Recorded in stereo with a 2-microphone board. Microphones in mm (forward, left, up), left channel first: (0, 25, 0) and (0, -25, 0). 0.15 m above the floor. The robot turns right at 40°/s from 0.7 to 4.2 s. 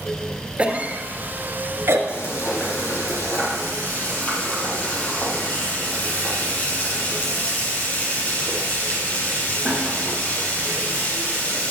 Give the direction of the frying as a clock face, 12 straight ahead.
10 o'clock.